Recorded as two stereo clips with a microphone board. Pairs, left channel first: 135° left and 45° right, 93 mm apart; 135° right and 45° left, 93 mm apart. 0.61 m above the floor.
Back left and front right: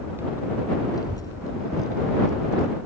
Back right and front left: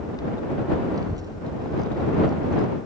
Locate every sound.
0.9 s a child speaking: 90° left; by 2.7 s 80° left